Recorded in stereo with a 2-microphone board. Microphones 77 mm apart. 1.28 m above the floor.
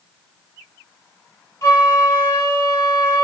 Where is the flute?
50° left (ahead or behind), 1.5 m.